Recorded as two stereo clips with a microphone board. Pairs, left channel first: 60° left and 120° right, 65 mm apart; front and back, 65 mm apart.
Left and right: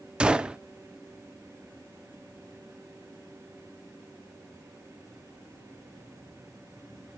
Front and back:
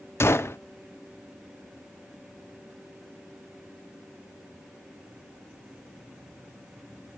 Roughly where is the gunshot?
Ahead right.